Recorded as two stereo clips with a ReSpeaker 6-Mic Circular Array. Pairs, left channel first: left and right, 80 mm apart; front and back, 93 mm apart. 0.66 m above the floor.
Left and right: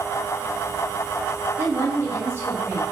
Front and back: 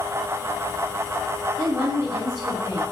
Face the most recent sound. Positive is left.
turn(degrees=-145)